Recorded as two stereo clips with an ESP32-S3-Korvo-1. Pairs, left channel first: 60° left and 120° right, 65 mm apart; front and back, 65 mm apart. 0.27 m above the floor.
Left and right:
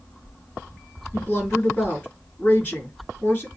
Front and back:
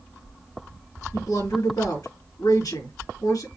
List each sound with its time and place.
1.1 s a woman speaking: 5° right, 4 m